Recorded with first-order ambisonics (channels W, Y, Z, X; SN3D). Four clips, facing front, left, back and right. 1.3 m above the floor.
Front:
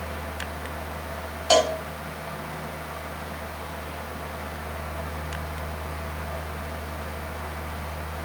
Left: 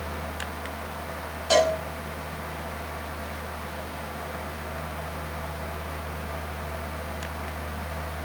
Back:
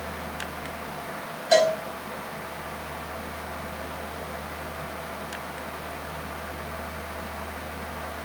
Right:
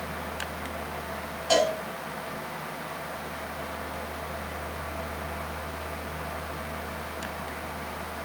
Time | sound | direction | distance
1.5 | a cowbell | straight ahead | 7.5 m